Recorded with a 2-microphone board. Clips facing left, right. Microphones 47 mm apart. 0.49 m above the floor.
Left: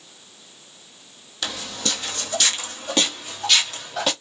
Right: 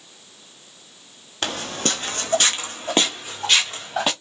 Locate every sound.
1.4 s footsteps: 50° right (ahead or behind), 0.7 m; by 4.1 s 25° right (ahead or behind), 2.5 m